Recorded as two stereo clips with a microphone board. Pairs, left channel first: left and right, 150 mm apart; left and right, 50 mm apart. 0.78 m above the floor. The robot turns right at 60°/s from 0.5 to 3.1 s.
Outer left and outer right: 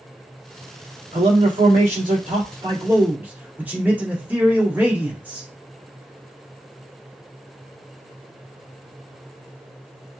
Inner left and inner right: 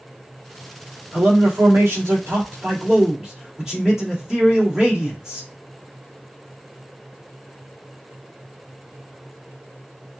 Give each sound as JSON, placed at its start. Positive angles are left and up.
{"t": 1.1, "sound": "a man speaking", "azimuth_deg": -130, "distance_m": 1.9}